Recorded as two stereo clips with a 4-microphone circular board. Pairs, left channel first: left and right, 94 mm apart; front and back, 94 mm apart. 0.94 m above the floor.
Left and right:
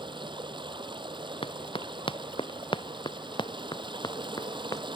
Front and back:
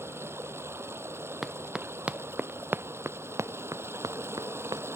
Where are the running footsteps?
95° left; by 4.8 s 140° left.